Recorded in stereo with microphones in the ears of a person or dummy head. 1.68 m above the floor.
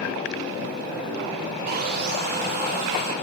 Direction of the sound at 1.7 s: 50° right (ahead or behind).